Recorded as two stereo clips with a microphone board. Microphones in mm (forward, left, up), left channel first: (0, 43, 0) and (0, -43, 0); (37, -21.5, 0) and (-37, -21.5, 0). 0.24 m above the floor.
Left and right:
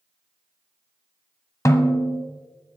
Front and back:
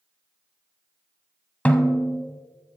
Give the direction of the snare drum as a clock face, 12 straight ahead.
10 o'clock.